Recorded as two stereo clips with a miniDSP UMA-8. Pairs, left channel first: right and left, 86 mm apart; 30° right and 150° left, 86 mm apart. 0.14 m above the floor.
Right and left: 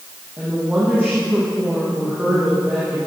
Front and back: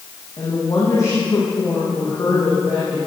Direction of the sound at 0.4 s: 10° left.